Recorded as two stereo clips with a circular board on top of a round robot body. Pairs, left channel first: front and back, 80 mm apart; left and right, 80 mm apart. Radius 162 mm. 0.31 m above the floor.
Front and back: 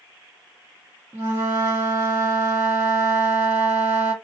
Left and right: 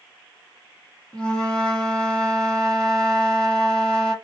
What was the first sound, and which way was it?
A flute, 155° left.